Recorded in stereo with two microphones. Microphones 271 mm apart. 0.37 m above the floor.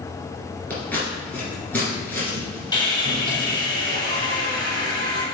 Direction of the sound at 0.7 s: 5° left (ahead or behind).